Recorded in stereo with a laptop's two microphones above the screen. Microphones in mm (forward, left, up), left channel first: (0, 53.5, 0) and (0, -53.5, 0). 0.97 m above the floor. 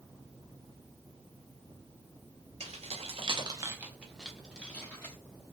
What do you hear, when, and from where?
2.6 s keys jangling: 75° right (ahead or behind), 0.7 m; by 5.2 s 15° left (ahead or behind), 1.3 m